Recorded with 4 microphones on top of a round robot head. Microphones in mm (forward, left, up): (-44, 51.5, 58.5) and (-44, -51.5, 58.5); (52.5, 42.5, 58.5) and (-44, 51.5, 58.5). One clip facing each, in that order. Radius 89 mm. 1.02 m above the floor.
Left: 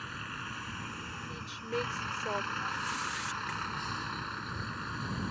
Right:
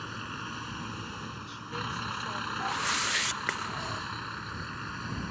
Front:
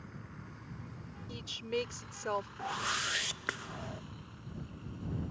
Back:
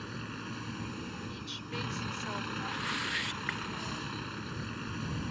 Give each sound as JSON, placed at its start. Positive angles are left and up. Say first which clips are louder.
{"t": 0.0, "sound": "a vehicle", "louder": "right 3 dB, back 9 dB", "azimuth_deg": -155}
{"t": 1.3, "sound": "a woman speaking", "louder": "left 3 dB, front 4 dB", "azimuth_deg": 40}
{"t": 2.6, "sound": "a whoosh", "louder": "right 4 dB, even", "azimuth_deg": -70}